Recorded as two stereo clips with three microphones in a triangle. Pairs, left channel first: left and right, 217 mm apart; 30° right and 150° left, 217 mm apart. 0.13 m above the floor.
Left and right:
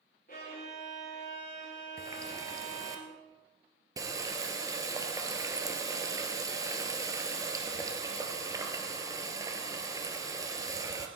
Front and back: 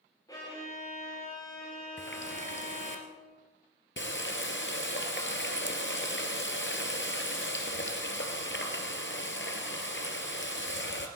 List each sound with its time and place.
0.3 s a violin: 45° left, 9 m
2.0 s a running tap: 15° right, 1.9 m